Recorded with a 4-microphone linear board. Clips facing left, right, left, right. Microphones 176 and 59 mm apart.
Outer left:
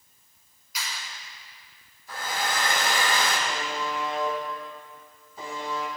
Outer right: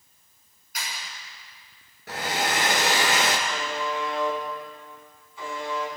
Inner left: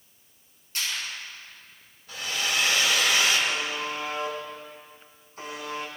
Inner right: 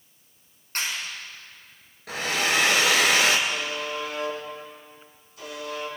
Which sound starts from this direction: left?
A buzzer, at 3.5 s.